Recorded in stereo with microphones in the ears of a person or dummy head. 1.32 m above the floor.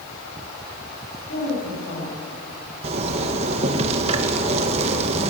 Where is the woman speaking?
50° left (ahead or behind), 9.5 m.